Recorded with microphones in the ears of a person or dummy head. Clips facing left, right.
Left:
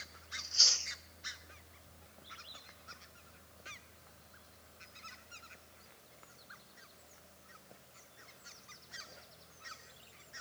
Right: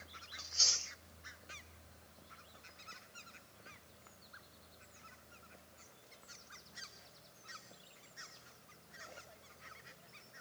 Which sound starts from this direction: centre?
Chewing, at 0.4 s.